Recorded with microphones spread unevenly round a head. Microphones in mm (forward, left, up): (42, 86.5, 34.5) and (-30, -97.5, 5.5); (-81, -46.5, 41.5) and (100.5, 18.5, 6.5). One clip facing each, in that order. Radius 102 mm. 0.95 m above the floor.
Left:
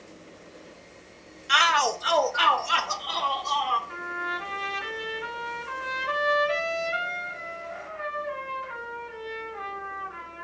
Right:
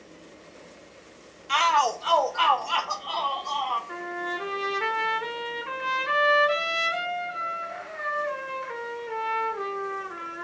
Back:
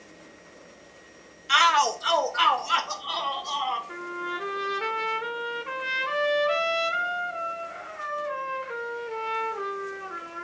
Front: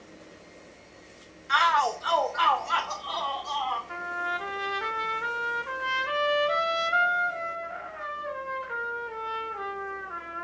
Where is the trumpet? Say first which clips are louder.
Right 4 dB, back 1 dB; 105° right, 3.5 m.